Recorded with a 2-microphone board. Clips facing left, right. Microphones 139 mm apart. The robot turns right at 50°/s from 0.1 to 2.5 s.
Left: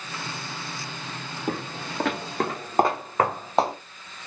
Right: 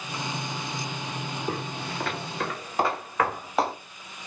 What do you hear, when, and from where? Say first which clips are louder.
1.5 s footsteps: left 4 dB; 60° left (ahead or behind), 2 m; by 3.7 s 25° left (ahead or behind), 1.7 m